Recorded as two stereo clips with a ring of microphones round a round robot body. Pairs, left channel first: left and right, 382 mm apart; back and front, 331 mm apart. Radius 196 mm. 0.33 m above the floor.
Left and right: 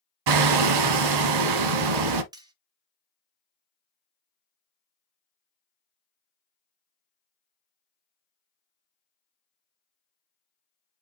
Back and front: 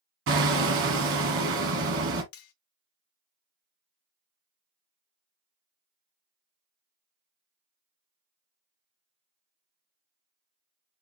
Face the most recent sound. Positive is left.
turn(degrees=-170)